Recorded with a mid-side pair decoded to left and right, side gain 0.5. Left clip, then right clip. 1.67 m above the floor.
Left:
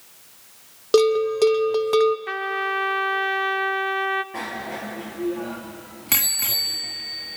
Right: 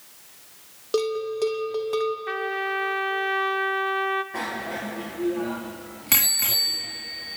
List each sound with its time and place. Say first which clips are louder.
0.9 s a bell: left 8 dB; 45° left, 1.0 m
2.3 s a trumpet: left 2 dB; 15° left, 0.8 m
4.3 s a bicycle bell: right 1 dB; 5° right, 2 m